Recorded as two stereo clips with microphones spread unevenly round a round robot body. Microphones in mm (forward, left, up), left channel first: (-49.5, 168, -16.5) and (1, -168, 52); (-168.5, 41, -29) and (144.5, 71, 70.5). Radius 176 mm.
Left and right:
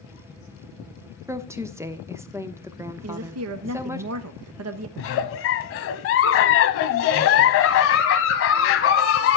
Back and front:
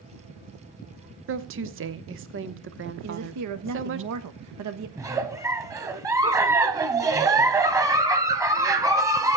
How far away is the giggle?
About 0.9 m.